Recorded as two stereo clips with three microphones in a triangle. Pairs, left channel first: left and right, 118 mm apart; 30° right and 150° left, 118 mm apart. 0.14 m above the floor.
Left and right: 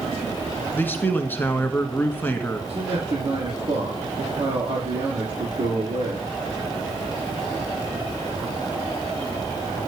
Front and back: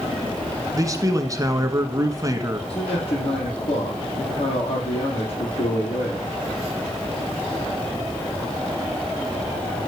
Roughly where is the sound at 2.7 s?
Ahead right.